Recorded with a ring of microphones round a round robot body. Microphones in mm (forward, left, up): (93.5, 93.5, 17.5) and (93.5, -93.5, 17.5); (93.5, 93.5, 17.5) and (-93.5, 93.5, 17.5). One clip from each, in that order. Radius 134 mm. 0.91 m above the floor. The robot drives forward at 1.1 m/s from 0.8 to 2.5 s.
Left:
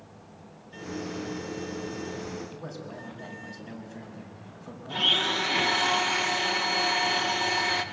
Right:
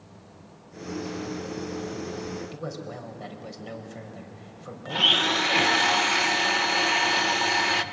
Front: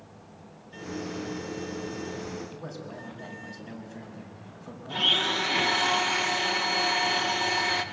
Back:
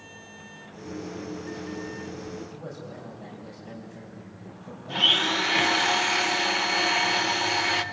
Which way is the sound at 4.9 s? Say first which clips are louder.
Right 3 dB, back 3 dB; 135° right.